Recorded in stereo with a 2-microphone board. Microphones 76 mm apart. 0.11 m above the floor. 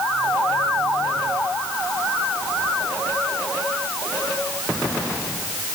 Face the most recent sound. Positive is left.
No sound to turn to.